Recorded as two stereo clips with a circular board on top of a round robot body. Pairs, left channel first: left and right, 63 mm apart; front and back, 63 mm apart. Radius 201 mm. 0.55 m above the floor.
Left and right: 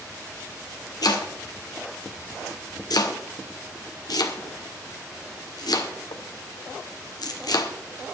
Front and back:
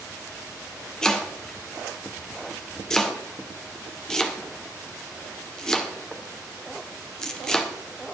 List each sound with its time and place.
1.0 s chopping: 80° left, 1.8 m